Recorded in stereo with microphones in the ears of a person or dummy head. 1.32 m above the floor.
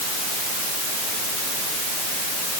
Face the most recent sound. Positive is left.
No sound to turn to.